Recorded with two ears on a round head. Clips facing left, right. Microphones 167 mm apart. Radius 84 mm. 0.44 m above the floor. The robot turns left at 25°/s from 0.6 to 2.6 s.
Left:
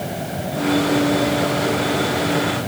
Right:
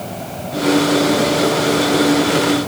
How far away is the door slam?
No door slam in this recording.